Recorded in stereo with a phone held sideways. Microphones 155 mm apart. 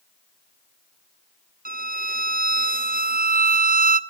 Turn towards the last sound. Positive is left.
turn(degrees=-65)  # may be behind; listen again after turning